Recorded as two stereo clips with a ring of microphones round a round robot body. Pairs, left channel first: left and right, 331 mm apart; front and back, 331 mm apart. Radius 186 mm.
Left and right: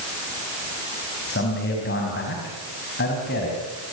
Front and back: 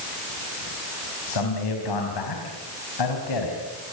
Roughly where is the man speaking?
Ahead left.